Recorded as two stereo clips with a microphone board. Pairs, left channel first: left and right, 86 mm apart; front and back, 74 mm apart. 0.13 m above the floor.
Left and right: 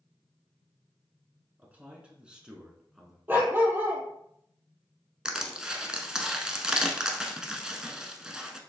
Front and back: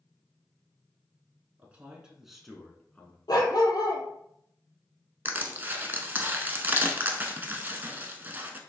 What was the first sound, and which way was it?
A man speaking, 140° right.